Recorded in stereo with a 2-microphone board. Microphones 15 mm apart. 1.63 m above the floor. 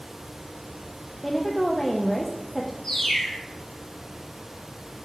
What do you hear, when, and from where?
1.2 s a woman speaking: 10° left (ahead or behind), 0.5 m
2.8 s a bird: 40° left (ahead or behind), 2.0 m